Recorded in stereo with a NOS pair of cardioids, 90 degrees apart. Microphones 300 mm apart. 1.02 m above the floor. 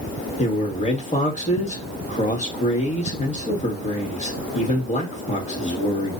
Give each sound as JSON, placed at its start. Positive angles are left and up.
{"t": 0.4, "sound": "a man speaking", "azimuth_deg": 25, "distance_m": 1.4}